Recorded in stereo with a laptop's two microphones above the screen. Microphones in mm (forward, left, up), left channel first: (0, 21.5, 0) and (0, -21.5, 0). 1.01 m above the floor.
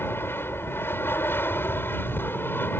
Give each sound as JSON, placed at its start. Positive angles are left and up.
{"t": 0.0, "sound": "an aircraft", "side_deg": 70}